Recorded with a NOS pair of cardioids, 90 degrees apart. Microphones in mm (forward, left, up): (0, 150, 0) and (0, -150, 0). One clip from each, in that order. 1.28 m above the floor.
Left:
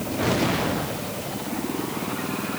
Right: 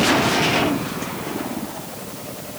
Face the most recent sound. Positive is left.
No sound to turn to.